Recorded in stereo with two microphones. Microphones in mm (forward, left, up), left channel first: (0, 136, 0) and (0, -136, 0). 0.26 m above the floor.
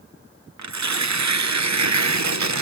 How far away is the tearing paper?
About 0.6 m.